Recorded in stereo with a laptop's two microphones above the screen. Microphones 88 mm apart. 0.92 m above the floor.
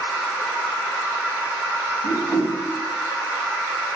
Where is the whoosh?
45° left (ahead or behind), 1.0 m.